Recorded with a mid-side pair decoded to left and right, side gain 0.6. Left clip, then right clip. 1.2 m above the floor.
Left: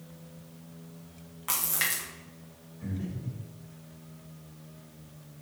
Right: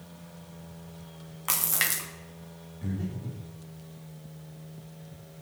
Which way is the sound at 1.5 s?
25° right.